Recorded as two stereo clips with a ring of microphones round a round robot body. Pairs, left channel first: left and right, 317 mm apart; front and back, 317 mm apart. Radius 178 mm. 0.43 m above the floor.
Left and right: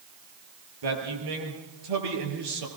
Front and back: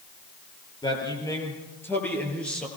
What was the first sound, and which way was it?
A man speaking, 80° right.